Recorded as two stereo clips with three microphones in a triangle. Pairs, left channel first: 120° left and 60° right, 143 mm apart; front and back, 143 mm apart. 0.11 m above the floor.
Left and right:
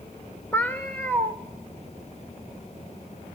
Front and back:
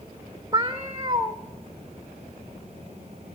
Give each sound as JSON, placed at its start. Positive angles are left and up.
{"t": 0.5, "sound": "a cat meowing", "azimuth_deg": -170, "distance_m": 0.6}